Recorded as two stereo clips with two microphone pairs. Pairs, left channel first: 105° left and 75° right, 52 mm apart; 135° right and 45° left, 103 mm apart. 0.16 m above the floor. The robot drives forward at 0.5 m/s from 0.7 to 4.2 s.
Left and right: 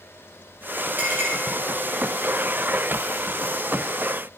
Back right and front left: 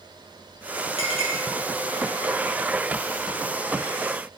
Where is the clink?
125° right, 3.5 m.